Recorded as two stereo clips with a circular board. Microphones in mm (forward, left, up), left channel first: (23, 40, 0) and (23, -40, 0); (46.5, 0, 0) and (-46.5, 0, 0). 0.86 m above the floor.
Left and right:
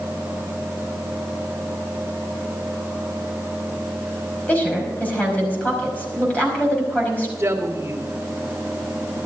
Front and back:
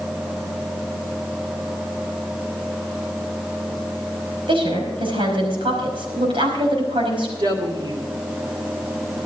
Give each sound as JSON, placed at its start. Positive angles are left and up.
{"t": 4.5, "sound": "a woman speaking", "azimuth_deg": 160, "distance_m": 5.0}
{"t": 7.4, "sound": "a woman speaking", "azimuth_deg": -145, "distance_m": 2.5}